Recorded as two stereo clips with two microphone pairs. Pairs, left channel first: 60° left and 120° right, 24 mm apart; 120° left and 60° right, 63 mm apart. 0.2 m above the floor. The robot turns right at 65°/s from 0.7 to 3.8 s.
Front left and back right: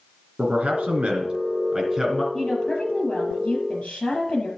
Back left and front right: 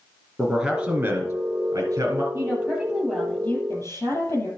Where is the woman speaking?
5° right, 5.5 m; by 4.5 s 90° left, 5.5 m.